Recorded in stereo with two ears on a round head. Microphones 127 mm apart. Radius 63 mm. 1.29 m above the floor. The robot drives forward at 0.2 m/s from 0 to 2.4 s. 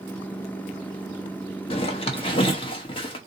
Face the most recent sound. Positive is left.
turn(degrees=35)  # may be behind; listen again after turning